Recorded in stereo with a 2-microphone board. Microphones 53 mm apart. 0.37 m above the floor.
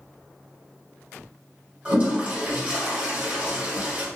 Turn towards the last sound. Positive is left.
turn(degrees=-25)  # may be behind; listen again after turning